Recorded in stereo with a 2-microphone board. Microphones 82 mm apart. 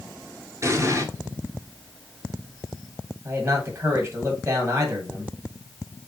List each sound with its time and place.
0.6 s an explosion: 35° right (ahead or behind), 0.8 m
3.2 s a man speaking: 25° right (ahead or behind), 1.3 m